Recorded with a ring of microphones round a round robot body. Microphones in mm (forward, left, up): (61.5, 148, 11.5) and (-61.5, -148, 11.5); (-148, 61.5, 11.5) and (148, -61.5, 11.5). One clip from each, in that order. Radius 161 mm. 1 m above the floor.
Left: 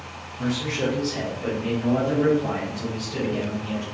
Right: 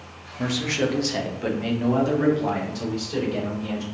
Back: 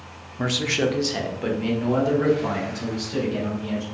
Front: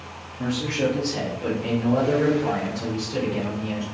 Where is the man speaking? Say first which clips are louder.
Right 2 dB, back 2 dB; 170° left, 0.6 m; by 3.8 s 140° right, 3 m.